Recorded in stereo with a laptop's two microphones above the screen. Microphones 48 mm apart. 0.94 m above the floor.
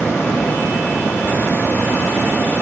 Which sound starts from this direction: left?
A fan, at 0.0 s.